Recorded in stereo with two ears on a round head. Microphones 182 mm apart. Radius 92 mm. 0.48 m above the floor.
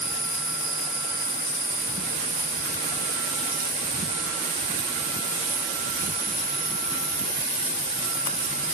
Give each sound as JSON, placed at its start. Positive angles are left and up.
{"t": 0.0, "sound": "an insect", "side_deg": -15, "distance_m": 6.5}